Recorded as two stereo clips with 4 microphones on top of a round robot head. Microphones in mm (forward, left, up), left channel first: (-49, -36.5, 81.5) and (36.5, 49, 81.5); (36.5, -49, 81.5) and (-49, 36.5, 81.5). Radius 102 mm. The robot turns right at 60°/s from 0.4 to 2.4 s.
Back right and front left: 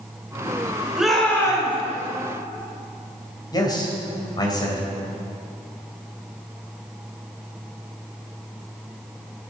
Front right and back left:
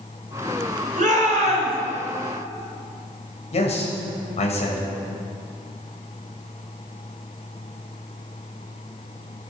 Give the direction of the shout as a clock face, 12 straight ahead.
8 o'clock.